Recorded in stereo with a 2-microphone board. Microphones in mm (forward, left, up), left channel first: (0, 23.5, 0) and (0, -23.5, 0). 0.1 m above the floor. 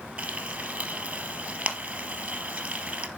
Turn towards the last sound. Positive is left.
turn(degrees=-25)  # may be behind; listen again after turning